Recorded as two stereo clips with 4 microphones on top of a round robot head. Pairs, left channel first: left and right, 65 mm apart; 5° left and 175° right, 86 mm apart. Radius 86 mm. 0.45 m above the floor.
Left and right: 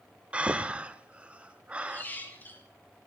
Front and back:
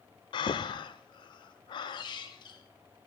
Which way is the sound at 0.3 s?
20° right.